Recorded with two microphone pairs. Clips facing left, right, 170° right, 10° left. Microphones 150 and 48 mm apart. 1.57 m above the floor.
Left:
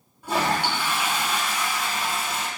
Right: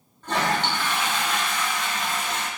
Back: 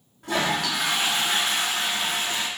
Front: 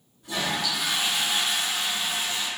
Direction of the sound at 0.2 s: 170° left.